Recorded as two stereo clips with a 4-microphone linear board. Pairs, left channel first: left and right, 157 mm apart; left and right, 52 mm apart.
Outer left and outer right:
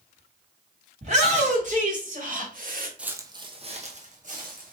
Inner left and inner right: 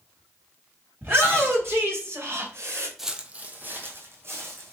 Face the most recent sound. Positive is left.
turn(degrees=-60)  # may be behind; listen again after turning